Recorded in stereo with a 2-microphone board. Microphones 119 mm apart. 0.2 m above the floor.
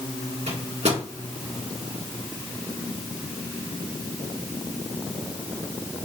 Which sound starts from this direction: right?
A microwave, at 0.5 s.